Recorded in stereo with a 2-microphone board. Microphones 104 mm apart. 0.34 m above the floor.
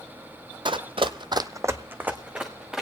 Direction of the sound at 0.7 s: 50° right (ahead or behind).